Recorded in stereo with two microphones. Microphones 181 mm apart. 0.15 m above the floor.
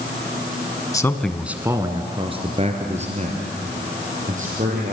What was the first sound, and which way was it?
A man speaking, 20° left (ahead or behind).